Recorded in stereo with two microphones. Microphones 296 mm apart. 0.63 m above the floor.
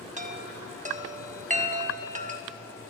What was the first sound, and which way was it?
A chime, 25° right (ahead or behind).